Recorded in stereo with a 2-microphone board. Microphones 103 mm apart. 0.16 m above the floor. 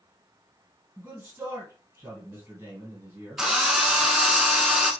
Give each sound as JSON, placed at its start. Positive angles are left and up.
{"t": 1.0, "sound": "a man speaking", "side_deg": -20, "distance_m": 1.9}
{"t": 3.4, "sound": "a drill", "side_deg": -5, "distance_m": 0.6}